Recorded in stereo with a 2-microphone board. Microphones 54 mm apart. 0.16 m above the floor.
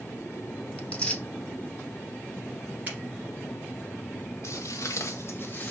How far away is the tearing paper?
About 0.8 m.